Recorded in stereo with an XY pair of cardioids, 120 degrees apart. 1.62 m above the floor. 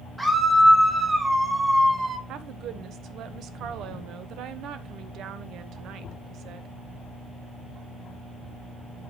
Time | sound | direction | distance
0.2 | a scream | 5° right | 2.5 m
2.3 | a woman speaking | 65° right | 1.0 m